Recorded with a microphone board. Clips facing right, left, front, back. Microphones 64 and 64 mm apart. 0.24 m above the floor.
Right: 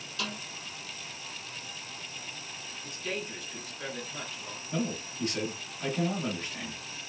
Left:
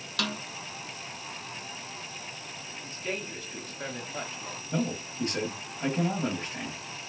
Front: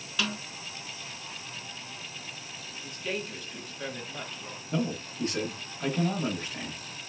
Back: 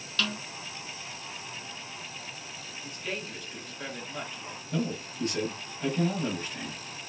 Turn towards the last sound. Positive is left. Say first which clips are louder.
# left 2 dB, front 1 dB
turn(degrees=40)